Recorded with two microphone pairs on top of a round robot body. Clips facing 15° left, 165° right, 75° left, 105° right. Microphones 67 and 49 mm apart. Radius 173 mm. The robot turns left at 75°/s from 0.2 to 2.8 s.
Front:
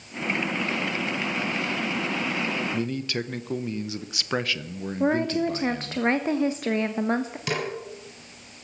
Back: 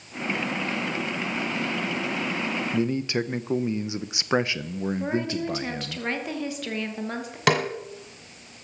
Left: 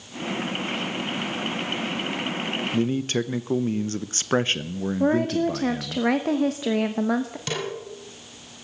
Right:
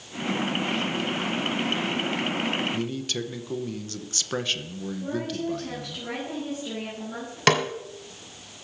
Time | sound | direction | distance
2.7 | a man speaking | 140° left | 1.1 m
5.0 | a woman speaking | 65° left | 1.4 m
7.5 | a snare drum | 140° right | 1.6 m